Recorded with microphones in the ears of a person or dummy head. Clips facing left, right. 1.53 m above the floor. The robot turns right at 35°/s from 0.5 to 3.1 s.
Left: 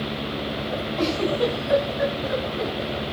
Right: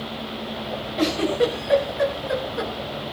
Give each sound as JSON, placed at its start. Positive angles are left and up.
{"t": 1.0, "sound": "a giggle", "side_deg": -10, "distance_m": 5.0}